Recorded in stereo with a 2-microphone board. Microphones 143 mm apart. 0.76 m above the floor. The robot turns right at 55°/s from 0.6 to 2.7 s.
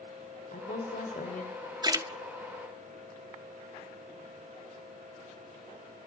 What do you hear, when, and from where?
0.5 s a woman speaking: 65° left, 3 m; by 1.6 s 120° left, 3 m
1.8 s a splash: 30° right (ahead or behind), 1.3 m; by 2.1 s 20° right (ahead or behind), 1.3 m